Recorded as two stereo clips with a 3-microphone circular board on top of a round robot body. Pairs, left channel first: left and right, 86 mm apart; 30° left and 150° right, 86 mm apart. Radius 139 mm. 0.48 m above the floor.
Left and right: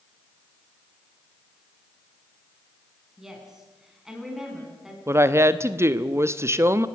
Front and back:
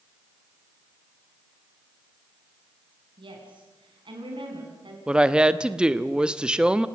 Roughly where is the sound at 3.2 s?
Behind.